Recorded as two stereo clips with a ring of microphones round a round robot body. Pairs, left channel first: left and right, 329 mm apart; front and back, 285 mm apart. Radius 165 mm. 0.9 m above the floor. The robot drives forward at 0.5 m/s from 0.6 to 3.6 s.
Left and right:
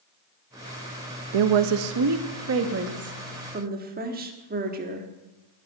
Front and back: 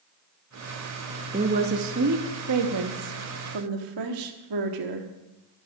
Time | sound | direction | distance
1.3 | a woman speaking | 105° right | 0.7 m